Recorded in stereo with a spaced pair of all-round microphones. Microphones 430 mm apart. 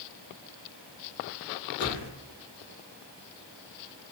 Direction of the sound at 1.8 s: 40° right (ahead or behind).